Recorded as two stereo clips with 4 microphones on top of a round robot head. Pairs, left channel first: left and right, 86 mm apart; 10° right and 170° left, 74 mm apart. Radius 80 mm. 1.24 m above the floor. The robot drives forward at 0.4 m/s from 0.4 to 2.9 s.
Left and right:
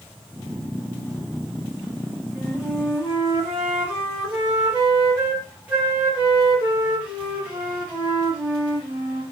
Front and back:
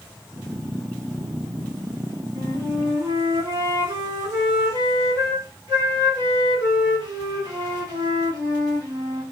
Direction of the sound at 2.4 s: 160° right.